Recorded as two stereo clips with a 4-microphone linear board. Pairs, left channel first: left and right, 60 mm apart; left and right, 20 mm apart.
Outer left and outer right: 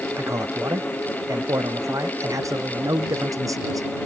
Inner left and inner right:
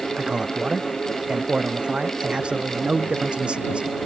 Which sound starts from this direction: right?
A man speaking, at 0.2 s.